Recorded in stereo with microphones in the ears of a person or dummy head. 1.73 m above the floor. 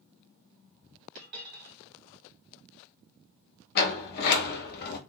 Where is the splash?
I don't hear a splash.